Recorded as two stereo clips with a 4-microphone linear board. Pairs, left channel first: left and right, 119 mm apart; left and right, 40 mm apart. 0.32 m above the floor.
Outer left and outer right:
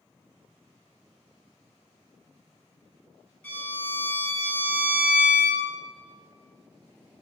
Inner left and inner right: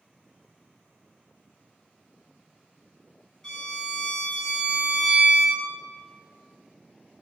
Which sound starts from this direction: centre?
A violin, at 3.4 s.